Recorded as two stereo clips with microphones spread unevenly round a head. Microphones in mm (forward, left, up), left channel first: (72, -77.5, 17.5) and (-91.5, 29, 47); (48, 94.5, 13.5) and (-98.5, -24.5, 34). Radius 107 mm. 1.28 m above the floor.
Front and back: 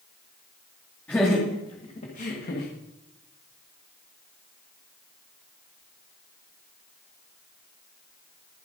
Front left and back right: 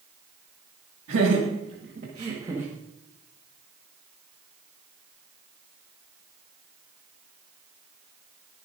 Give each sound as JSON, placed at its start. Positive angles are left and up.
{"t": 1.1, "sound": "laughter", "azimuth_deg": -115, "distance_m": 2.0}